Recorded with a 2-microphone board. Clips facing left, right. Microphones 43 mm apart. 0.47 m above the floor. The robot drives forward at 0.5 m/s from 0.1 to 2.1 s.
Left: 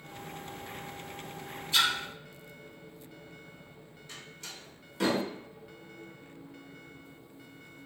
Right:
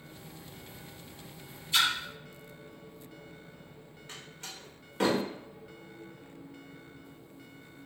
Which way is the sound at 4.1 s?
35° right (ahead or behind).